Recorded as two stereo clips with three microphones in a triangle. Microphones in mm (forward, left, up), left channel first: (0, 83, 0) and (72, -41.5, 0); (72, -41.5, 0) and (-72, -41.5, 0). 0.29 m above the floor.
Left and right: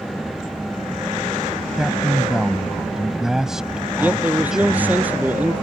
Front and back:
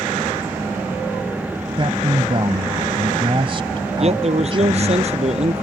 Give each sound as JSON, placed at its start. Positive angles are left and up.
{"t": 1.8, "sound": "a man speaking", "azimuth_deg": -145}
{"t": 4.0, "sound": "a man speaking", "azimuth_deg": -140}